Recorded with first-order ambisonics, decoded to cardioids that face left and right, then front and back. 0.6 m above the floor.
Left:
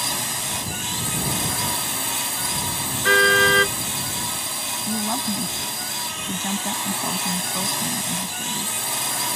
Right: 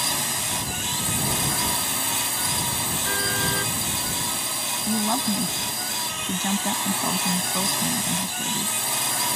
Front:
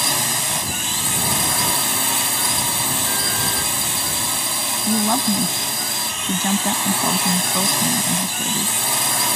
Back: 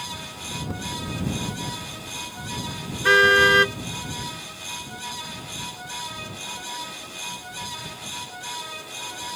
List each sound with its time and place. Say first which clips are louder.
0.0 s a drone: even, front 13 dB; straight ahead
3.0 s a car horn: left 12 dB, back 7 dB; 140° left
4.9 s a woman speaking: right 2 dB, front 13 dB; 5° right